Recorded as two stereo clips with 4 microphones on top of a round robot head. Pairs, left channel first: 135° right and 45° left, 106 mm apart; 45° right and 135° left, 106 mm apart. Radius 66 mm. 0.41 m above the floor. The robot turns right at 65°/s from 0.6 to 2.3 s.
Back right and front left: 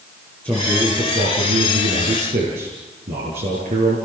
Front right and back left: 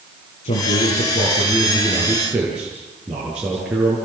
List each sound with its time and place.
0.4 s a man speaking: 55° right, 8 m; by 4.0 s 55° left, 8 m